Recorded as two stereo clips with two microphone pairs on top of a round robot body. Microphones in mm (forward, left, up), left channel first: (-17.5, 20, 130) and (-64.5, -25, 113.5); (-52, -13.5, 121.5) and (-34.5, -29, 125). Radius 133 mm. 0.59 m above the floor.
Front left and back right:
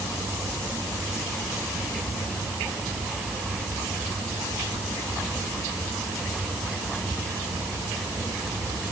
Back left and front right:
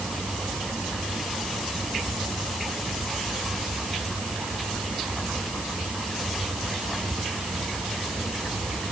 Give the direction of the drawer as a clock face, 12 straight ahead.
No drawer in this recording.